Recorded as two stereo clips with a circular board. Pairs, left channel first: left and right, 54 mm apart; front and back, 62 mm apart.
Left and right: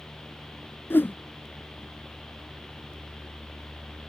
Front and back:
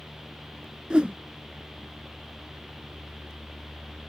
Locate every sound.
0.9 s a whoosh: 110° left